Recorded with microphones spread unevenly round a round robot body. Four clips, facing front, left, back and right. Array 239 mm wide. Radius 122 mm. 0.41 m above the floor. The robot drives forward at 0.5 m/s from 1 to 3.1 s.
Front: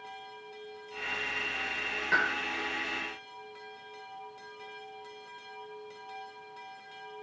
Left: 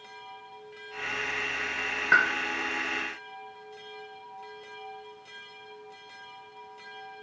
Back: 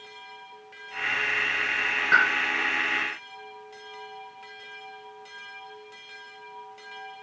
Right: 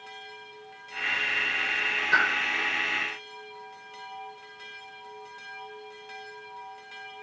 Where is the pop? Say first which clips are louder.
Left 1 dB, back 7 dB; 130° left, 0.7 m; by 2.3 s 135° left, 0.8 m.